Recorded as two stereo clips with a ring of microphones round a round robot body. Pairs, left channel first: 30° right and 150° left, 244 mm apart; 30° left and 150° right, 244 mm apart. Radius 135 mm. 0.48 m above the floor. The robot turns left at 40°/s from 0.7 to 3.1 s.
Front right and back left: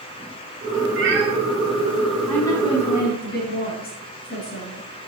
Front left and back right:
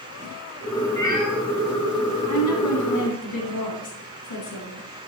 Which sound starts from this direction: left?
A cat meowing, at 1.0 s.